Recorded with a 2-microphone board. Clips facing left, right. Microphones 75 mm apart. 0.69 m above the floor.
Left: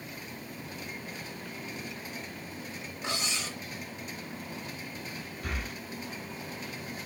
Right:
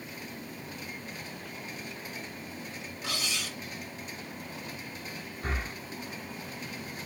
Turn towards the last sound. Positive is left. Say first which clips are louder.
# right 3 dB
turn(degrees=-30)  # may be behind; listen again after turning